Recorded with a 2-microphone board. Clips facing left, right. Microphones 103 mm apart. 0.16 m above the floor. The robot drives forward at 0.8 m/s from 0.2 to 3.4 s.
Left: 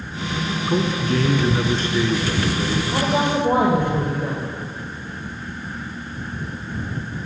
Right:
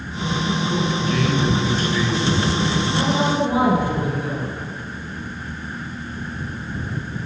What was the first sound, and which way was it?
A man speaking, 45° left (ahead or behind).